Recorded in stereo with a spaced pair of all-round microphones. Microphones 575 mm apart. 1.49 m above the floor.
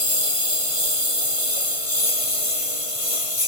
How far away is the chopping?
I don't hear chopping.